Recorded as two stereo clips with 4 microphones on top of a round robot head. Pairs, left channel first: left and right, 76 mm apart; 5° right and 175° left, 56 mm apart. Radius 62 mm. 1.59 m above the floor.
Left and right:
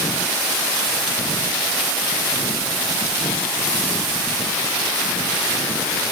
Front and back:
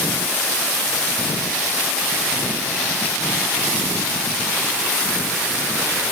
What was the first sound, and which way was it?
Only background noise.